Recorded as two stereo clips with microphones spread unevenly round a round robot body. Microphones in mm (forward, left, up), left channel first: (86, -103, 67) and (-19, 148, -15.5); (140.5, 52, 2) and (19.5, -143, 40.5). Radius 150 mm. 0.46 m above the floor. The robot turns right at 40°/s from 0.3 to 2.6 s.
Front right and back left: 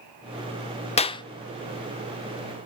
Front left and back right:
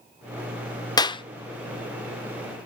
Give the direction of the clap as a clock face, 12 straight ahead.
12 o'clock.